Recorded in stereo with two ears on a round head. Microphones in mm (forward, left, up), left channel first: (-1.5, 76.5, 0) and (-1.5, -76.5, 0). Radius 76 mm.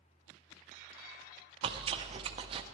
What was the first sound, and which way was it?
Chewing, 30° right (ahead or behind).